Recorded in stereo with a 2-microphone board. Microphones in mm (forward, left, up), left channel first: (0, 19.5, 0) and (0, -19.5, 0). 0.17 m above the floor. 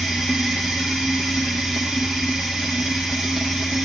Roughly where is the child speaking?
No child speaking in this recording.